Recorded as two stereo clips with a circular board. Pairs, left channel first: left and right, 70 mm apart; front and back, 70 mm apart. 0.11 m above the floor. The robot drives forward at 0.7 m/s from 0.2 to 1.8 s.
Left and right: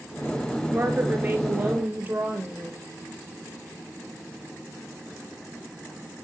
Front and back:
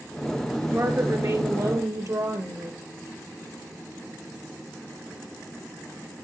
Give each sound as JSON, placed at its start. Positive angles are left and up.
{"t": 0.7, "sound": "a woman speaking", "azimuth_deg": -145, "distance_m": 2.5}